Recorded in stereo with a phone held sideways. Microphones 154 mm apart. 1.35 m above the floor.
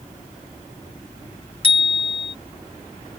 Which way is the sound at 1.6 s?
35° left (ahead or behind).